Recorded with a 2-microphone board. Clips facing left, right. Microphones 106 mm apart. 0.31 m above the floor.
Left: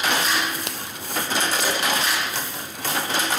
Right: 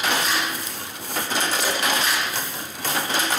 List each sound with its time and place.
0.7 s a finger snap: 70° left (ahead or behind)